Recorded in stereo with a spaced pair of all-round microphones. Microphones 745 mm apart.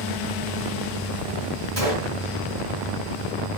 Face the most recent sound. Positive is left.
turn(degrees=-25)  # may be behind; listen again after turning